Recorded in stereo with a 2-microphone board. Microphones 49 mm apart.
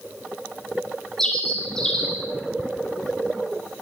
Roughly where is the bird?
Centre.